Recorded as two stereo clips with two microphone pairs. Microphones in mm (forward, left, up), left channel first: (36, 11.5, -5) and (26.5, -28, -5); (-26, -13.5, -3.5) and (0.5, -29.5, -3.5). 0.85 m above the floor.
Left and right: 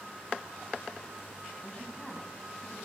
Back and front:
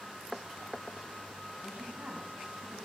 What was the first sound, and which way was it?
A woman speaking, 20° right.